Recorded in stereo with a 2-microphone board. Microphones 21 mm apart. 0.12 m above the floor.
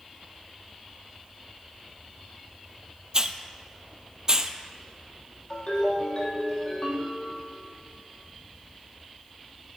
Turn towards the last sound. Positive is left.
turn(degrees=50)  # may be behind; listen again after turning